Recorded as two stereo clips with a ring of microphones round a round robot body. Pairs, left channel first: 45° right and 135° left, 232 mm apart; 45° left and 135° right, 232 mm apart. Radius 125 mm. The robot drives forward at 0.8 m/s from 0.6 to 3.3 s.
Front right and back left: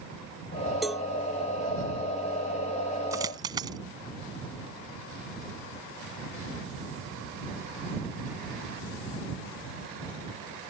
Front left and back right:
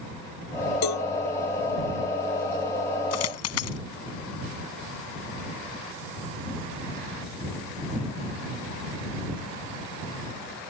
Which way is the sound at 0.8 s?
45° left.